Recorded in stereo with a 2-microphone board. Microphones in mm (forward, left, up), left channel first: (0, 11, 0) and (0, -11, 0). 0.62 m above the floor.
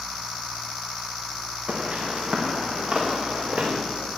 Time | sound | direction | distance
1.7 | footsteps | 45° right (ahead or behind) | 4 m